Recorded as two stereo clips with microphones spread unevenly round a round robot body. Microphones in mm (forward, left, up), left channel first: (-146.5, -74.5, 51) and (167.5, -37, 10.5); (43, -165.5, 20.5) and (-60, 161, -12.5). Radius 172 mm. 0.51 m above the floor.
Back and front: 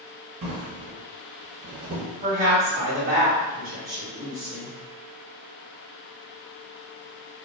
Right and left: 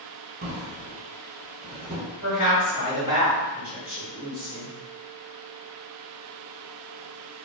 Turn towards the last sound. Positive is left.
turn(degrees=40)